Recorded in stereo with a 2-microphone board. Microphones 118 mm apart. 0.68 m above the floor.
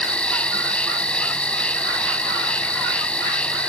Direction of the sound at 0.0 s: 10° left (ahead or behind).